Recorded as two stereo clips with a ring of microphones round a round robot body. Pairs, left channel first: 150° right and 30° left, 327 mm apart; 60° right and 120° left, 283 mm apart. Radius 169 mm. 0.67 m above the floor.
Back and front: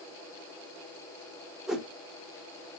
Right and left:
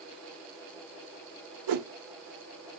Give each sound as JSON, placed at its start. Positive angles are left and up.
{"t": 1.7, "sound": "a whoosh", "azimuth_deg": 120, "distance_m": 0.7}